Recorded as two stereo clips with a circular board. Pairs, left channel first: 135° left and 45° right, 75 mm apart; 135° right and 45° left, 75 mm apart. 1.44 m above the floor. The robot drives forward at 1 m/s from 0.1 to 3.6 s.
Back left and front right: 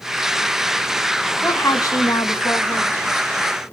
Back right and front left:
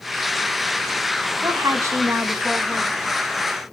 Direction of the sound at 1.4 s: 80° left.